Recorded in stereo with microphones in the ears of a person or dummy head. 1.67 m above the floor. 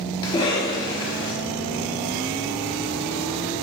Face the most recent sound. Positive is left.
turn(degrees=25)  # may be behind; listen again after turning